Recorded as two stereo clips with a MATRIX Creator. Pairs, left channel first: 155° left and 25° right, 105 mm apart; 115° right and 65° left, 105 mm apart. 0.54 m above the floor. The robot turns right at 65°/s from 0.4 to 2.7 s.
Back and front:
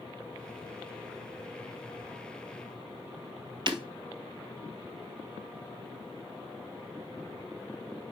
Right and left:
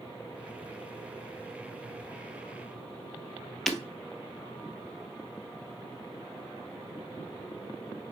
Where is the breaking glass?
25° right, 0.7 m.